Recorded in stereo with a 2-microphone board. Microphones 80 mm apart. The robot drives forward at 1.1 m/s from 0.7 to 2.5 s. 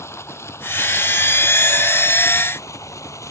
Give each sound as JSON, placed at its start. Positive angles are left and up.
{"t": 0.0, "sound": "running water", "side_deg": 35}